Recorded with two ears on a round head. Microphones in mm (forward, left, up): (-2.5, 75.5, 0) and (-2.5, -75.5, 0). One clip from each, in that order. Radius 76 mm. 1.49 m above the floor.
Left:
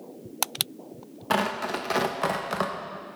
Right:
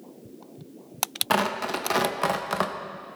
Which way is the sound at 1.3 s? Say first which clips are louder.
Even; 15° right (ahead or behind).